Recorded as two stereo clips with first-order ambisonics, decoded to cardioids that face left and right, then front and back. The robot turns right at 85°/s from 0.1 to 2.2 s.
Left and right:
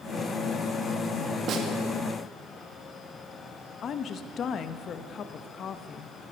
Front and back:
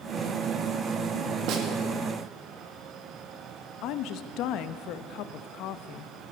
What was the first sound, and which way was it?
A snare drum, 145° right.